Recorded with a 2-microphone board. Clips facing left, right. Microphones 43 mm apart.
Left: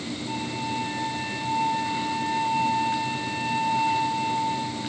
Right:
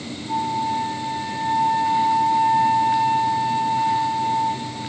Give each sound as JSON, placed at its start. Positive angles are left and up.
{"t": 0.3, "sound": "a flute", "side_deg": 75, "distance_m": 9.0}